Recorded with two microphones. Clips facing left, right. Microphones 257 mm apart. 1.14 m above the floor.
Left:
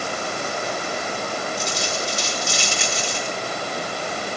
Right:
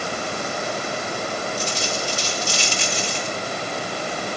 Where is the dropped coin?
75° left (ahead or behind), 6 m.